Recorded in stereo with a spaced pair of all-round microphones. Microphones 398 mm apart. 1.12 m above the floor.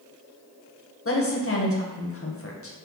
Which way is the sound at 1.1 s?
35° left (ahead or behind).